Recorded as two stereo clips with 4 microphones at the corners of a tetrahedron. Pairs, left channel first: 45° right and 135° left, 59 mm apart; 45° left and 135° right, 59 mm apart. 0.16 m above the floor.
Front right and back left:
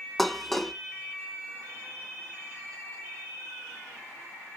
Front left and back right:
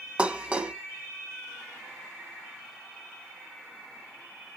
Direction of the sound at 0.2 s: 125° right.